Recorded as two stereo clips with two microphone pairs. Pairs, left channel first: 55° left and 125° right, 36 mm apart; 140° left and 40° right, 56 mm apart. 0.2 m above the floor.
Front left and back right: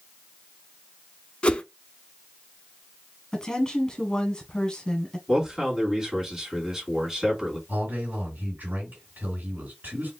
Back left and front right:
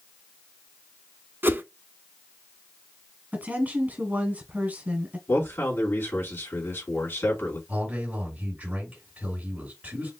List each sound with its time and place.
1.4 s a whoosh: 5° right, 0.5 m
3.3 s a woman speaking: 5° right, 1.3 m
5.3 s a man speaking: 165° left, 2.5 m
7.7 s a man speaking: 105° right, 3 m